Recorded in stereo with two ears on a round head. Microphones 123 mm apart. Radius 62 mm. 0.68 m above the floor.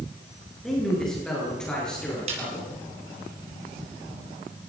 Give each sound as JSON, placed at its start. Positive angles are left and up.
{"t": 0.6, "sound": "a man speaking", "side_deg": 5, "distance_m": 8.5}
{"t": 2.3, "sound": "a snare drum", "side_deg": -50, "distance_m": 6.5}